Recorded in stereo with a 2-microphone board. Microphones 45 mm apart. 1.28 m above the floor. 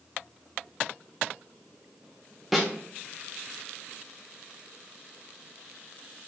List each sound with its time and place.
2.5 s a snare drum: centre (ahead or behind), 0.6 m